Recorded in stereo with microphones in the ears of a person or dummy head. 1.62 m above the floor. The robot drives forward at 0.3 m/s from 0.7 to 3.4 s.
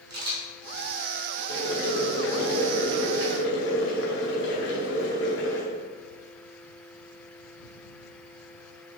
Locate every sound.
0.1 s a camera shutter: 60° right (ahead or behind), 0.8 m; by 1.4 s 45° right (ahead or behind), 1.0 m
1.5 s boiling: 70° left (ahead or behind), 0.8 m; by 5.6 s 65° left (ahead or behind), 0.8 m